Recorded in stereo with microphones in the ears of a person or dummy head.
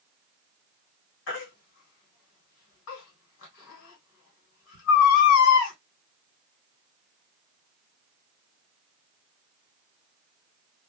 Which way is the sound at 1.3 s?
60° left (ahead or behind).